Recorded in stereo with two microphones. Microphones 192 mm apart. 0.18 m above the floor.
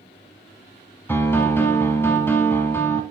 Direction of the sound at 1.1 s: 10° left (ahead or behind).